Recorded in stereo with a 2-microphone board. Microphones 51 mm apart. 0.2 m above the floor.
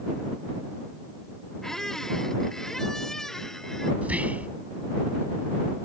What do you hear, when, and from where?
1.6 s a squeak: 10° left (ahead or behind)
4.0 s whispering: 30° right (ahead or behind)